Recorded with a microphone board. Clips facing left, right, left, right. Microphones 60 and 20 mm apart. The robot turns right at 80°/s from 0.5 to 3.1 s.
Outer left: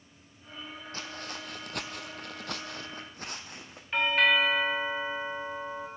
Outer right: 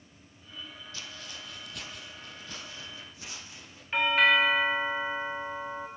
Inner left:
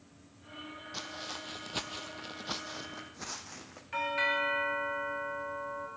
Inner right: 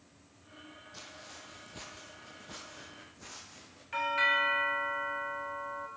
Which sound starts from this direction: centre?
A doorbell, at 3.9 s.